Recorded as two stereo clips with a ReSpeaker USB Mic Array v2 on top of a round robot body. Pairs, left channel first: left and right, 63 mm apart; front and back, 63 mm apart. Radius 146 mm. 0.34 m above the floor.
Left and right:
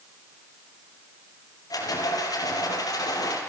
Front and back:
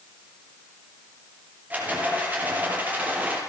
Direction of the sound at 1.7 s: 115° left.